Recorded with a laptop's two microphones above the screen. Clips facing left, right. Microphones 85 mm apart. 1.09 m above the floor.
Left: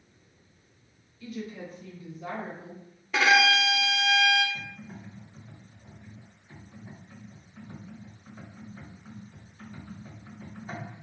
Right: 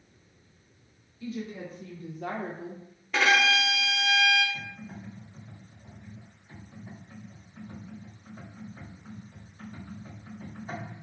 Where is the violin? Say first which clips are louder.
Left 2 dB; 5° left (ahead or behind), 0.7 m.